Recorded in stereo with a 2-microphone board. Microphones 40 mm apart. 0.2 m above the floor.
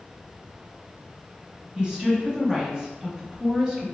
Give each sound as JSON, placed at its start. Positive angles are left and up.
{"t": 1.8, "sound": "a woman speaking", "side_deg": -20, "distance_m": 1.0}